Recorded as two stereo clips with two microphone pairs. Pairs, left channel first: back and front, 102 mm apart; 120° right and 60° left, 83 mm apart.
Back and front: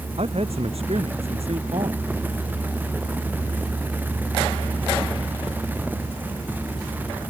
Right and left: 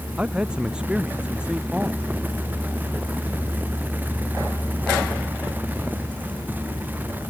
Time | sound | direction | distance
0.2 | a man speaking | 20° right | ?